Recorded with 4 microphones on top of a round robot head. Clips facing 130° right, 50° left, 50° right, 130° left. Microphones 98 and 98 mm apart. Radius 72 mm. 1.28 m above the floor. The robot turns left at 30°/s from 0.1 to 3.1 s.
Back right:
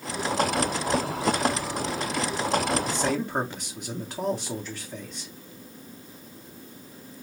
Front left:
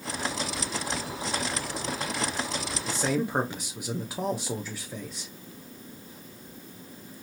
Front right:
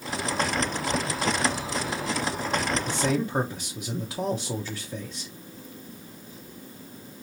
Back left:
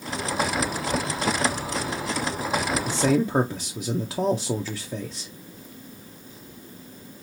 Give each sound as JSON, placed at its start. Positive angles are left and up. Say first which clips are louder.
{"t": 2.9, "sound": "a man speaking", "louder": "back right 1 dB, back left 4 dB", "azimuth_deg": 140, "distance_m": 0.8}